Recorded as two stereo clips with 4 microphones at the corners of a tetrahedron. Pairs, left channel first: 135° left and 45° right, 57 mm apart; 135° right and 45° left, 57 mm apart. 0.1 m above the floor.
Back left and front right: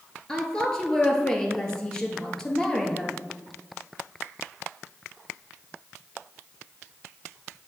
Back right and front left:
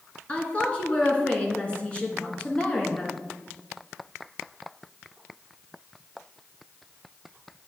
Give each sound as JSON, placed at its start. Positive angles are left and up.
{"t": 0.3, "sound": "a woman speaking", "azimuth_deg": -160, "distance_m": 1.2}